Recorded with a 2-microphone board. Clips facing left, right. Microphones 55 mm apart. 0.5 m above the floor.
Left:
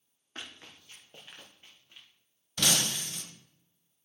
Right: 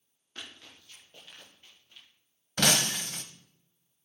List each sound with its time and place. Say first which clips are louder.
0.3 s running footsteps: left 1 dB; 30° left (ahead or behind), 5 m; by 2.1 s 20° left (ahead or behind), 4.5 m
2.6 s breaking glass: right 3 dB; 55° right (ahead or behind), 1.2 m